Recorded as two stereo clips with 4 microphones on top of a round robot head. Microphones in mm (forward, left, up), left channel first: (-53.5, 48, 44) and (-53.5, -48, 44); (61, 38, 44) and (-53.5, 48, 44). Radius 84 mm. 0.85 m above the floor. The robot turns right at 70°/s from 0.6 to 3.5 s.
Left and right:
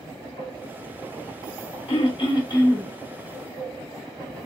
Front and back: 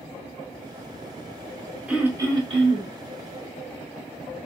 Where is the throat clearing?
95° left, 5 m; by 2.9 s 165° left, 5 m.